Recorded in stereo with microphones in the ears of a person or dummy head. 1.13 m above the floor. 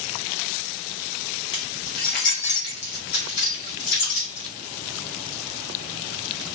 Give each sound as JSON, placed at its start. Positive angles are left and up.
{"t": 1.5, "sound": "keys jangling", "side_deg": 35, "distance_m": 0.8}